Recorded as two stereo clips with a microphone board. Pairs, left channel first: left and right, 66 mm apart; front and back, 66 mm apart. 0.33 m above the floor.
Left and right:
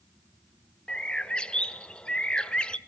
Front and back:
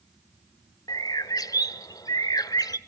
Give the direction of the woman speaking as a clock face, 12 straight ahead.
I don't hear a woman speaking.